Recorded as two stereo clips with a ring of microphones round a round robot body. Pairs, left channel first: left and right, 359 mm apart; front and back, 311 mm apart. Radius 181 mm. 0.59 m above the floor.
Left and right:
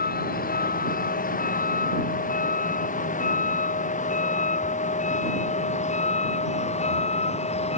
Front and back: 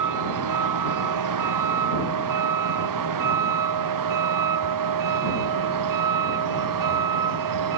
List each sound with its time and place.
0.0 s a vehicle: 155° left; by 7.8 s 165° left